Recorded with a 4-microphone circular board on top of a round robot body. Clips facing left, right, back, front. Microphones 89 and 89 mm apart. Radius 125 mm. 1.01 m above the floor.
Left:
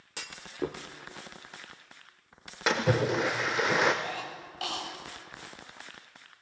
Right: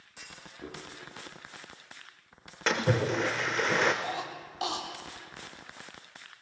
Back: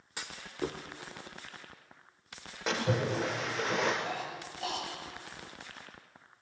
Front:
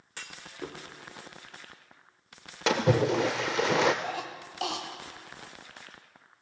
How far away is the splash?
About 0.8 m.